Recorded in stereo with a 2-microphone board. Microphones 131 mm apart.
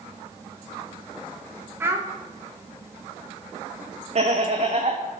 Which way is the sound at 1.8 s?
15° right (ahead or behind).